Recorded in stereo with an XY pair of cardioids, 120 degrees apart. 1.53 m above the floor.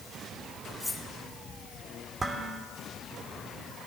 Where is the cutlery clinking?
10° left, 2.5 m.